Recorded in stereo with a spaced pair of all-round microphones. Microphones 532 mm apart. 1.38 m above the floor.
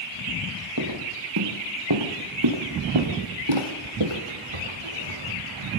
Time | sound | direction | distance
0.8 | footsteps | 35° right (ahead or behind) | 3 m